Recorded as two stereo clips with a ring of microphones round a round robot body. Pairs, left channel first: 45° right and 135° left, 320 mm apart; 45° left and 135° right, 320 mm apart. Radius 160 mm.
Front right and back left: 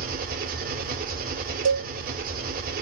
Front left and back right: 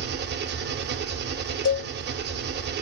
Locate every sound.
0.0 s an engine running: 175° right, 0.7 m
1.6 s a cowbell: 95° left, 1.3 m